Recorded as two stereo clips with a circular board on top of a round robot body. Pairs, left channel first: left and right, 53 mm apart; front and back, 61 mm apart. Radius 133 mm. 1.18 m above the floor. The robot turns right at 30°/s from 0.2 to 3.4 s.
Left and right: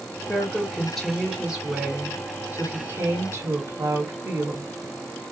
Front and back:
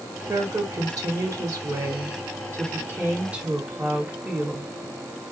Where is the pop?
I don't hear a pop.